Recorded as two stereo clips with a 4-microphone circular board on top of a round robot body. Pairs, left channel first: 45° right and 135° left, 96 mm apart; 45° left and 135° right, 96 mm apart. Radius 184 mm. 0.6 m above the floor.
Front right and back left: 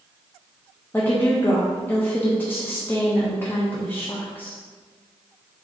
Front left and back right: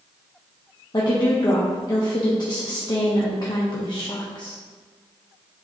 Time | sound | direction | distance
0.9 | a woman speaking | 20° left | 1.3 m